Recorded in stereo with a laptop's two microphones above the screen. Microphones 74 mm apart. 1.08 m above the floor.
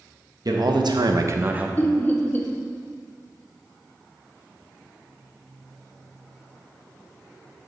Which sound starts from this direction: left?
Laughter, at 1.8 s.